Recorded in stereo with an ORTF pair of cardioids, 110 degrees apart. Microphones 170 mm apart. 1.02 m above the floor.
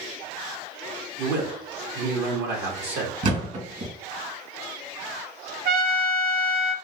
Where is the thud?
50° right, 2 m.